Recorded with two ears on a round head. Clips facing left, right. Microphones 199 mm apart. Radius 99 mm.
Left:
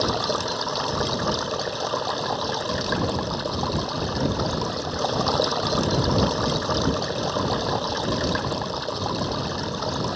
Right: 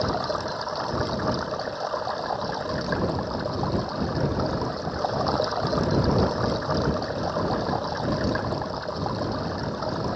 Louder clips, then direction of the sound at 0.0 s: Left 2 dB; 45° left (ahead or behind).